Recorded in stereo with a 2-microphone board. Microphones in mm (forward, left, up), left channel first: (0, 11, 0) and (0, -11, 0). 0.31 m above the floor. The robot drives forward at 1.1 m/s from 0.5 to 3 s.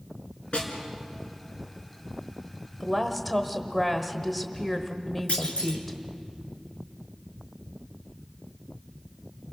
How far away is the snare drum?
About 3.5 m.